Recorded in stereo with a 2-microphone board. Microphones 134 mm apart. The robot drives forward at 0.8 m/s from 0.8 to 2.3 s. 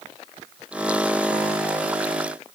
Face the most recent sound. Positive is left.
No sound to turn to.